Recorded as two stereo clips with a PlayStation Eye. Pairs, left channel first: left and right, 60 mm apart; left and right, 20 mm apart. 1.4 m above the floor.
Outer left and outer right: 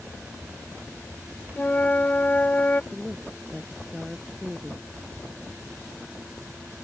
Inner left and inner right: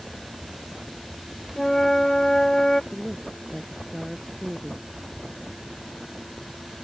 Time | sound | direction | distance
1.6 | a flute | 25° left (ahead or behind) | ?
2.9 | a woman speaking | 15° right (ahead or behind) | ?